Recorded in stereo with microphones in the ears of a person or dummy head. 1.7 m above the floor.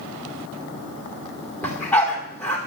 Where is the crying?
No crying in this recording.